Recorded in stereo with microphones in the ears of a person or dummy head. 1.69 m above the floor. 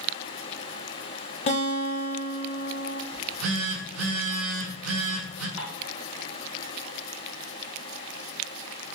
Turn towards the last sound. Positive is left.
turn(degrees=55)  # may be behind; listen again after turning